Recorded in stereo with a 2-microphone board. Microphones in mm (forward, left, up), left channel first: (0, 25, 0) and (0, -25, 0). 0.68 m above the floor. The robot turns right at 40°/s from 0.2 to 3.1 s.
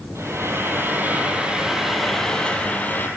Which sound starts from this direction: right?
Frying, at 0.1 s.